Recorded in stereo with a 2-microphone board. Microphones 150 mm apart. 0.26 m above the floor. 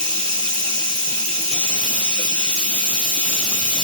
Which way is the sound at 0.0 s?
25° left (ahead or behind).